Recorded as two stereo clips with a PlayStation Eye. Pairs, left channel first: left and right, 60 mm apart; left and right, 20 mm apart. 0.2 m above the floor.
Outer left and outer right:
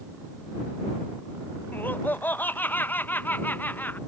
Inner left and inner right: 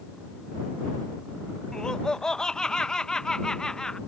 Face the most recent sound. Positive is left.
turn(degrees=30)  # may be behind; listen again after turning